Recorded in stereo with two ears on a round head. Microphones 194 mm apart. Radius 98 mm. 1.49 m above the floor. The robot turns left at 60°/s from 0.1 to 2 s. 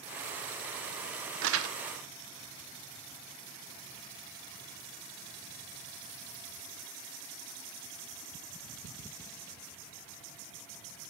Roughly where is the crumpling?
Right.